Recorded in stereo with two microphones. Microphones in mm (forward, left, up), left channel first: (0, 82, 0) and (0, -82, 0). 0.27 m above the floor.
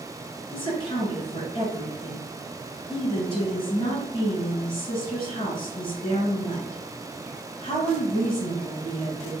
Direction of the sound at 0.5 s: 30° left (ahead or behind).